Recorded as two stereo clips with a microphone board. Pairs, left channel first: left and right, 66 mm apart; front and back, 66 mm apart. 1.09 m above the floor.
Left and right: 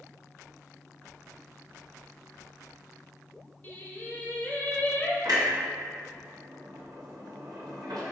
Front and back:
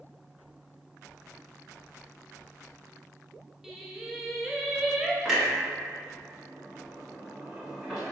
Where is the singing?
100° left, 0.6 m.